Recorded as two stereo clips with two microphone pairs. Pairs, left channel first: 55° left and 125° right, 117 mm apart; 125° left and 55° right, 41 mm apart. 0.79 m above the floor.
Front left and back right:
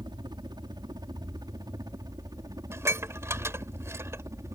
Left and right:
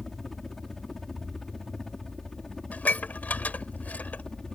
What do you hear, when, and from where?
0.0 s a helicopter: 155° right; by 4.5 s 175° right
2.7 s dishes clattering: 165° left